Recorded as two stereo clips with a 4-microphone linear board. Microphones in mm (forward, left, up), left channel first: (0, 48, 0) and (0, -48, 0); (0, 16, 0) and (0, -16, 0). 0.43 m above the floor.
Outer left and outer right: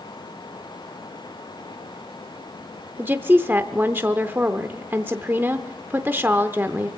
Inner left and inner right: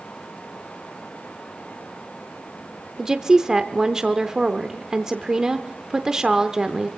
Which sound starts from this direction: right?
A woman speaking, at 3.0 s.